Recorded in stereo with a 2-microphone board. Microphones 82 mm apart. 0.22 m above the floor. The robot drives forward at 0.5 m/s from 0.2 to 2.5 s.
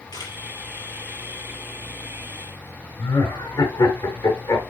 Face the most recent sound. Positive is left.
turn(degrees=60)  # may be behind; listen again after turning